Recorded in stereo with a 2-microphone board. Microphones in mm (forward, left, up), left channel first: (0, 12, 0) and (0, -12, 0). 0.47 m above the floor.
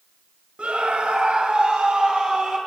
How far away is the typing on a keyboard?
I don't hear typing on a keyboard.